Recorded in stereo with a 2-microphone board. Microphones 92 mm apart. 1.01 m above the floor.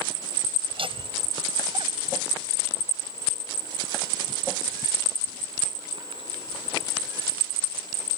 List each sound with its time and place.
0.7 s laughter: 75° right (ahead or behind); by 6.9 s 70° right (ahead or behind)